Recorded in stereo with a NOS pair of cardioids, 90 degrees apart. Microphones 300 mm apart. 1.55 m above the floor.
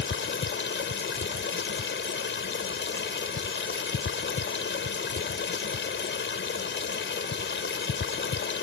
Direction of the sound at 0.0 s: 40° left.